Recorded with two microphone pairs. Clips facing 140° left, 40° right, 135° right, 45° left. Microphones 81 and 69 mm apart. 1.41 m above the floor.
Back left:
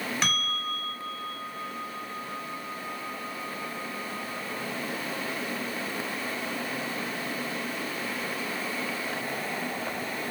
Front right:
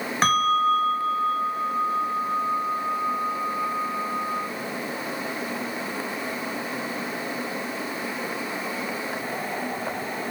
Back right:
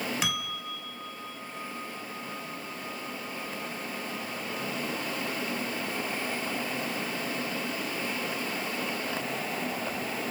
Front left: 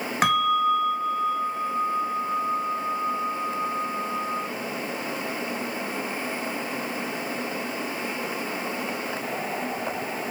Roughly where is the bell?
Ahead.